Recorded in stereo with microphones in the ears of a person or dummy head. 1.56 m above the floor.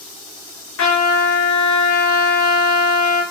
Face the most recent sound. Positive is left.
turn(degrees=65)  # may be behind; listen again after turning